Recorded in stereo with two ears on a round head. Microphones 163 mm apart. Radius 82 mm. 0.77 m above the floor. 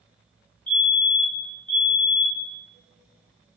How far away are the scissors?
No scissors in this recording.